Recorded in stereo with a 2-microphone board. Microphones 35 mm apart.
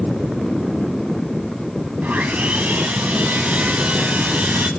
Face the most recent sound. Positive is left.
turn(degrees=-55)  # may be behind; listen again after turning